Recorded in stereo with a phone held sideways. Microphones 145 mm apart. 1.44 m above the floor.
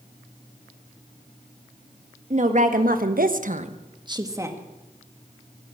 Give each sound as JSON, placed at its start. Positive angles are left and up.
{"t": 2.3, "sound": "a woman speaking", "side_deg": -55, "distance_m": 1.9}